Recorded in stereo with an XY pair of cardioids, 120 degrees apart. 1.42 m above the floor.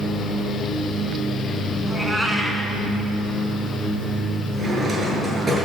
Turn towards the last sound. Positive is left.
turn(degrees=-30)